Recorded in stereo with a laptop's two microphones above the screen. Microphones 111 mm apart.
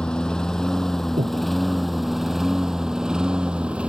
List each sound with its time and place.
0.0 s a lawn mower: 10° left (ahead or behind); by 3.9 s 10° right (ahead or behind)
1.2 s breathing: 75° right (ahead or behind)